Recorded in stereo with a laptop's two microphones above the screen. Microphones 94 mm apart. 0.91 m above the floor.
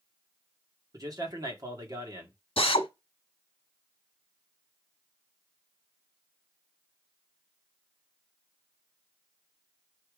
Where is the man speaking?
40° right (ahead or behind), 1.7 m.